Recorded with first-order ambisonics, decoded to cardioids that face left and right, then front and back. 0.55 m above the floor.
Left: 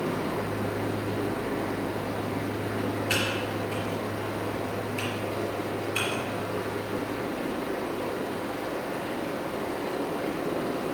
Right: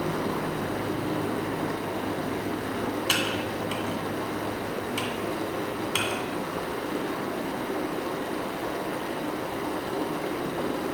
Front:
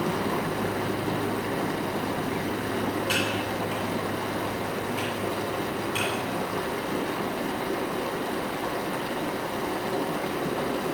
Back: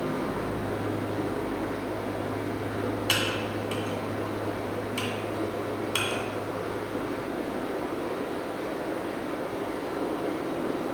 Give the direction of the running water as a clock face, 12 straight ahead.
1 o'clock.